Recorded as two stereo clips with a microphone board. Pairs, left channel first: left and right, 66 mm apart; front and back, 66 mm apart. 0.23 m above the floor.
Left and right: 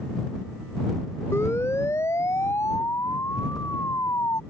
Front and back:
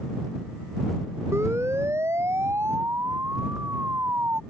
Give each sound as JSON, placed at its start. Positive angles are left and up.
{"t": 1.3, "sound": "a siren", "azimuth_deg": 135}